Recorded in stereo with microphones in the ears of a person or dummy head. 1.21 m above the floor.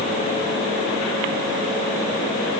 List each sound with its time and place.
Only background noise.